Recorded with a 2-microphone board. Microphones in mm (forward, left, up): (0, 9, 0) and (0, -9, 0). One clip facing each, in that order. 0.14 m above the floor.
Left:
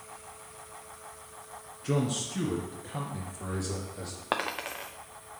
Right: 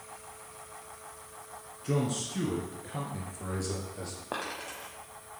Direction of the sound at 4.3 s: 80° left.